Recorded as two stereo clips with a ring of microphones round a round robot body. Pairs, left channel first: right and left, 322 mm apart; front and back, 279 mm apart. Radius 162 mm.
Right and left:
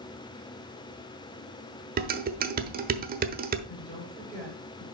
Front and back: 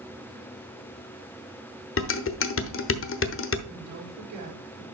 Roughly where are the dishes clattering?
Ahead left.